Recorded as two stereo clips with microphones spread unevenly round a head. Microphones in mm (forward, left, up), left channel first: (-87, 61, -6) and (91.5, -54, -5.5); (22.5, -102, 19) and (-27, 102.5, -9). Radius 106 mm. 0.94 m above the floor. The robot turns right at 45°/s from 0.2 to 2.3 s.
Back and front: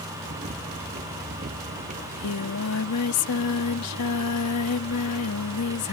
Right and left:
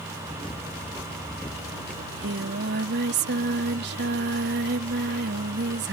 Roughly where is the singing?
Behind left.